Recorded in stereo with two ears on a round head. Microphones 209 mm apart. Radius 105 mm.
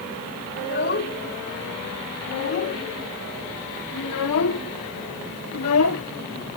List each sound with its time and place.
0.6 s a child speaking: 45° left (ahead or behind); by 6.0 s 65° left (ahead or behind)